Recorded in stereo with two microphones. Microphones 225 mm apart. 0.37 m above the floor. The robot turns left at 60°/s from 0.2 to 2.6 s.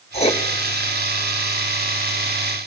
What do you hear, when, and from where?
0.1 s writing: 25° left (ahead or behind), 1.2 m